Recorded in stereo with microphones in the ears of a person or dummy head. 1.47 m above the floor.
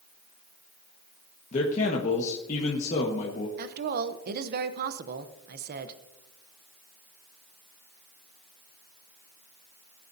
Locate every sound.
1.5 s a man speaking: 40° left (ahead or behind), 1.6 m
3.6 s a woman speaking: 65° right (ahead or behind), 0.9 m